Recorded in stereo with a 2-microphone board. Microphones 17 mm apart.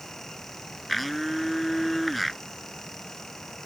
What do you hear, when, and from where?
0.9 s a blender: centre (ahead or behind)